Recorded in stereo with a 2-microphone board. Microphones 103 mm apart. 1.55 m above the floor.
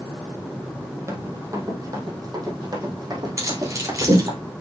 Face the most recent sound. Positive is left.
turn(degrees=-35)  # may be behind; listen again after turning